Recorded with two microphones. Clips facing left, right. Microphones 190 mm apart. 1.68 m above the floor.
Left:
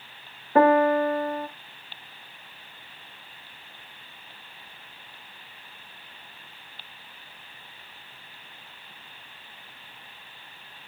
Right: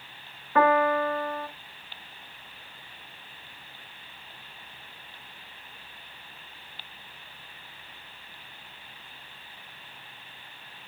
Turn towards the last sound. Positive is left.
turn(degrees=35)  # may be behind; listen again after turning